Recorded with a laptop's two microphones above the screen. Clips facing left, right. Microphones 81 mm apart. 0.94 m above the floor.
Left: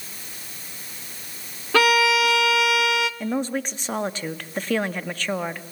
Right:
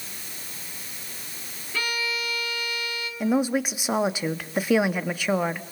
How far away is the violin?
About 1.0 m.